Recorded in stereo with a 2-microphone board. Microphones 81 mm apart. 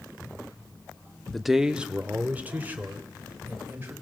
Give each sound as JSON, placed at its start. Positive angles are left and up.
{"t": 1.3, "sound": "a man speaking", "side_deg": 5, "distance_m": 0.7}